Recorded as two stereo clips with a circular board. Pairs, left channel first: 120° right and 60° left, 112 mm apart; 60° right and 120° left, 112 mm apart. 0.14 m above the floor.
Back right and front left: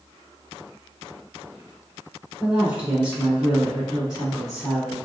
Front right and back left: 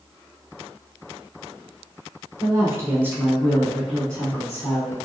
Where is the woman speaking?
130° left, 1.4 m; by 5.0 s 15° right, 1.4 m.